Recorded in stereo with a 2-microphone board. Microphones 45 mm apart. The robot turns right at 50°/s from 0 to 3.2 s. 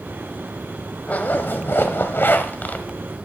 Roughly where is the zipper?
Ahead left.